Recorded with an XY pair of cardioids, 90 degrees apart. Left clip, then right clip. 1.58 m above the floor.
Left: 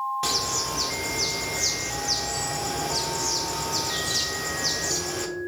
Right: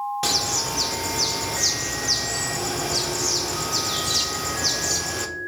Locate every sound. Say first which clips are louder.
0.2 s a bird: right 3 dB; 30° right, 0.8 m